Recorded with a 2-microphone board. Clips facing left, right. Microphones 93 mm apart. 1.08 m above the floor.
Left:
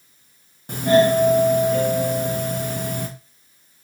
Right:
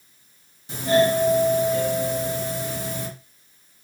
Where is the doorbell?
55° left (ahead or behind), 1.6 m.